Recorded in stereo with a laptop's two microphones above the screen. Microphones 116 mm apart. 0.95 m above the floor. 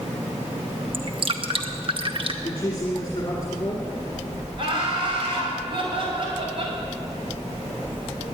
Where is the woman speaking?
30° left (ahead or behind), 2.5 m.